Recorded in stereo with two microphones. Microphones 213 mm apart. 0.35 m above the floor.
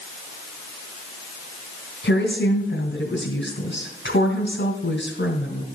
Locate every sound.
2.0 s a woman speaking: 65° left (ahead or behind), 3 m